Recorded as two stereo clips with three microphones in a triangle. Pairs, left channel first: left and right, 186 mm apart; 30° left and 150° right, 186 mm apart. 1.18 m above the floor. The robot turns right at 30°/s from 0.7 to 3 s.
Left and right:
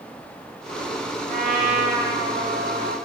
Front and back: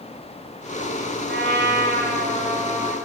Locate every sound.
1.3 s a trumpet: 130° right, 3 m; by 3.0 s 80° right, 3 m